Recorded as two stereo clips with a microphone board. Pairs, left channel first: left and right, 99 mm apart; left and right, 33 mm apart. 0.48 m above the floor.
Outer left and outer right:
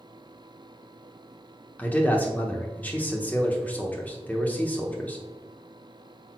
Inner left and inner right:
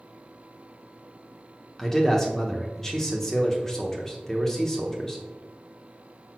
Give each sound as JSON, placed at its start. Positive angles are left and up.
{"t": 1.8, "sound": "a man speaking", "side_deg": 15, "distance_m": 1.0}